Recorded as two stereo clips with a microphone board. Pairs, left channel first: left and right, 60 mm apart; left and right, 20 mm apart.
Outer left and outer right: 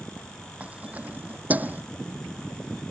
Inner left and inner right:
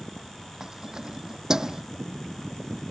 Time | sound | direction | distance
0.6 | keys jangling | 25° right (ahead or behind) | ?